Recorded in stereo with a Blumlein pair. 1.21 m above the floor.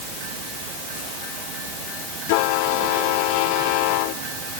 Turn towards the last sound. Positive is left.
No sound to turn to.